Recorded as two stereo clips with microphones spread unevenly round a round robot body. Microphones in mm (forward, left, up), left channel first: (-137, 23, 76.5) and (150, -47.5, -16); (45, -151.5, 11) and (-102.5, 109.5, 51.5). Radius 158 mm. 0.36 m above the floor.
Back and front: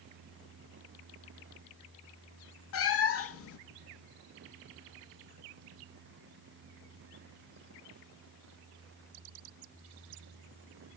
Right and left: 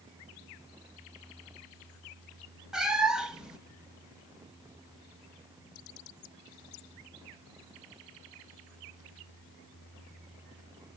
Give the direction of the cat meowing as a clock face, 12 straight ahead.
5 o'clock.